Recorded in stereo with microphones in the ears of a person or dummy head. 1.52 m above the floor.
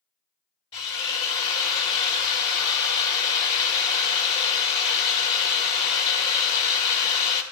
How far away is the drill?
About 2.5 m.